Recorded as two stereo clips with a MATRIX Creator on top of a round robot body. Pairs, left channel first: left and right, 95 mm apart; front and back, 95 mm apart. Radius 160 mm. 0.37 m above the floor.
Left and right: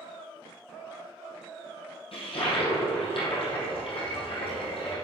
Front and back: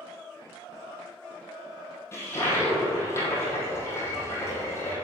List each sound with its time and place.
2.1 s a toilet flushing: 65° left, 4 m